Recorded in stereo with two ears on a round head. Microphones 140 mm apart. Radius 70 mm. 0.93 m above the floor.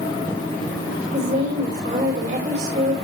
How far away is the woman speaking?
About 3.5 m.